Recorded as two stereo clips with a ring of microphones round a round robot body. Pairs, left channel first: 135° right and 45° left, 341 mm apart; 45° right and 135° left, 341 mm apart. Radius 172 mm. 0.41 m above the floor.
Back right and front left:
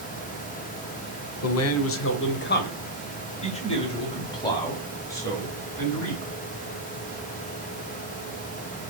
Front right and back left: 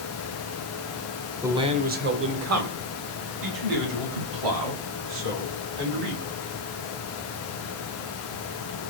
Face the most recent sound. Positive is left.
turn(degrees=140)